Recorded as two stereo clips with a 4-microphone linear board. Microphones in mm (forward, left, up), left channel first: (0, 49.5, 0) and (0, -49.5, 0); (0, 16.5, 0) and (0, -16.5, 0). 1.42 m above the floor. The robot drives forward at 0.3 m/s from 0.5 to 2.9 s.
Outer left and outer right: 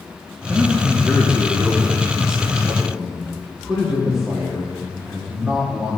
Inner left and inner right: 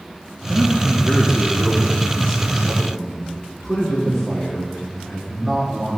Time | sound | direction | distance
0.5 | a man speaking | 15° right (ahead or behind) | 0.8 m